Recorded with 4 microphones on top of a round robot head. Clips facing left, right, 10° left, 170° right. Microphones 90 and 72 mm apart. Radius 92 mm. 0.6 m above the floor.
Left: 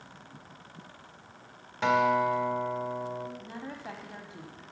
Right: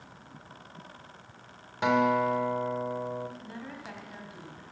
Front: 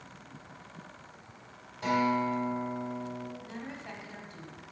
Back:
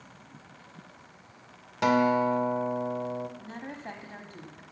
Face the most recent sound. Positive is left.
turn(degrees=150)